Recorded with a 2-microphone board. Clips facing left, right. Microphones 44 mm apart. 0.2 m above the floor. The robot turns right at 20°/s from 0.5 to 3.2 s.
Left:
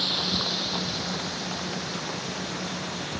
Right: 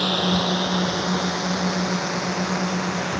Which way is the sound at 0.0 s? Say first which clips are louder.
Right 7 dB; 50° right (ahead or behind).